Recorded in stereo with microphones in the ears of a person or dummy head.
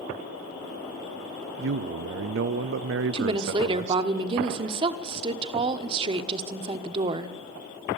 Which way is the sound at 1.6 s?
65° right (ahead or behind).